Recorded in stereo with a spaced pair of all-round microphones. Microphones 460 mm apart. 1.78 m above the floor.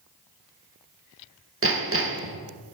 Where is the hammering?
30° right (ahead or behind), 0.6 m.